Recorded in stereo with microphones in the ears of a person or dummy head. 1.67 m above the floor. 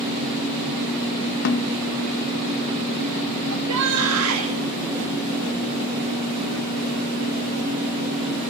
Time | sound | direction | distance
1.4 | a snare drum | 50° left (ahead or behind) | 0.9 m
3.5 | a shout | 85° right | 3.5 m